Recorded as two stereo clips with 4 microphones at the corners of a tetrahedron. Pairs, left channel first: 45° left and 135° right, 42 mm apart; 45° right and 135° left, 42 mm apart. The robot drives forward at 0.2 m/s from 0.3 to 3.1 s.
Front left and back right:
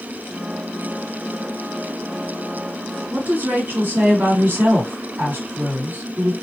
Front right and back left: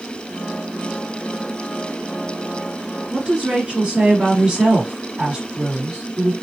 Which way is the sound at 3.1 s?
165° right.